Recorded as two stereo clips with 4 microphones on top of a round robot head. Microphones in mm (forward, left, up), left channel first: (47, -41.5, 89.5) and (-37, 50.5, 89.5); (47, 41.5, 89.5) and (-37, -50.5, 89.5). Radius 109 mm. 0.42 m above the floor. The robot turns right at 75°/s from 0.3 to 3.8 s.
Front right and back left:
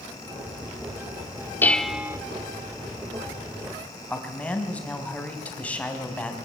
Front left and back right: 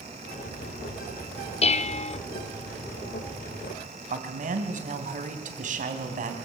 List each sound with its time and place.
1.6 s dishes clattering: 25° left, 0.8 m; by 2.2 s 70° left, 0.8 m
4.1 s a man speaking: 125° right, 3.5 m